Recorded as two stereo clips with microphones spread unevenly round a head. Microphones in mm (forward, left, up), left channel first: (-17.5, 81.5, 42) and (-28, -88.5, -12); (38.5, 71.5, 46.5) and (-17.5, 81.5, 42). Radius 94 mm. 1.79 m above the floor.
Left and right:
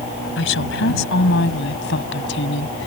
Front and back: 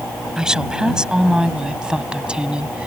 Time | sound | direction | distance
0.4 | a woman speaking | 90° left | ?